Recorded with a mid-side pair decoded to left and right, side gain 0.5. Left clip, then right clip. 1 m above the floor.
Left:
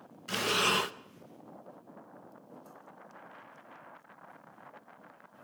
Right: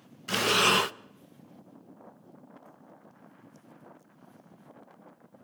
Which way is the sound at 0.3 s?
35° right.